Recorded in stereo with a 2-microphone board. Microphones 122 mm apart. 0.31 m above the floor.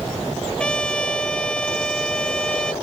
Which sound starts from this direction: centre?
A trumpet, at 0.6 s.